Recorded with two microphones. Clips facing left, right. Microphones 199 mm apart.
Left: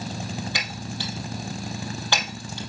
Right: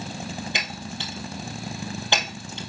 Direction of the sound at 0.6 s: 20° right (ahead or behind).